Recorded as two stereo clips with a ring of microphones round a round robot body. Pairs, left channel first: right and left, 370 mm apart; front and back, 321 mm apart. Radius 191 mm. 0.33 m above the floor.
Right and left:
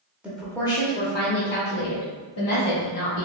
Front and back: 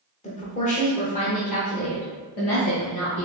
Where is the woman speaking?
10° left, 1.1 m; by 3.2 s 65° right, 2 m.